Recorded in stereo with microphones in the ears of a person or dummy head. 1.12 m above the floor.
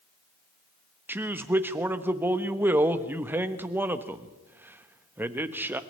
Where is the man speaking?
10° right (ahead or behind), 1.1 m.